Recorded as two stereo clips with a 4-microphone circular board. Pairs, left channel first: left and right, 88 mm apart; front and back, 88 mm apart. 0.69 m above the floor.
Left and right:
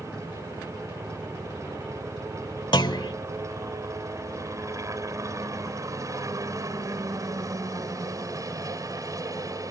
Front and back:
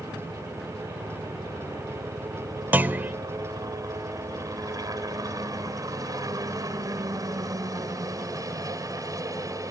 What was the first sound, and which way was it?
A helicopter, 145° right.